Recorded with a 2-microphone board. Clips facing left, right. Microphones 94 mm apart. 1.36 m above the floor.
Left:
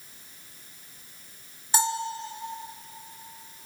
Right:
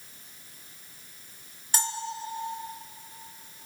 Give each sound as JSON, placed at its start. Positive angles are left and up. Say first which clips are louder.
{"t": 1.7, "sound": "a bell", "louder": "left 6 dB", "side_deg": 20, "distance_m": 2.0}